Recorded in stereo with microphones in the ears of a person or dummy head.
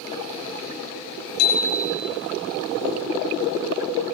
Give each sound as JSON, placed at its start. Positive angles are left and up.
{"t": 1.4, "sound": "a bicycle bell", "side_deg": 75, "distance_m": 3.5}